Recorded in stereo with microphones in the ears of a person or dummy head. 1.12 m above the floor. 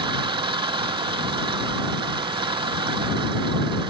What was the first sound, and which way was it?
An engine running, 25° right (ahead or behind).